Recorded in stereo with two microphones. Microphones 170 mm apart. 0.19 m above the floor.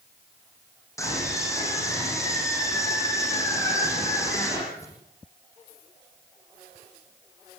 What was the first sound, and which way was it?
A scream, 20° left (ahead or behind).